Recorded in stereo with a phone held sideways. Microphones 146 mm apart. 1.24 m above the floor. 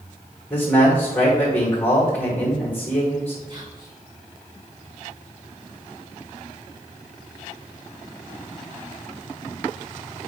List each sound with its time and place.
0.5 s a man speaking: 10° left (ahead or behind), 2.5 m
3.5 s whispering: 35° right (ahead or behind), 1.9 m